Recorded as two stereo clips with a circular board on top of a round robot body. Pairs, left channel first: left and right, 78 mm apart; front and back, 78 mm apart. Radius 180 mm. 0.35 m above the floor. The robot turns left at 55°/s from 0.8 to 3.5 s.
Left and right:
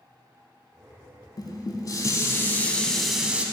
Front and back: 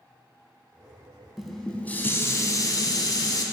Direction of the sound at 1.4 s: 95° left.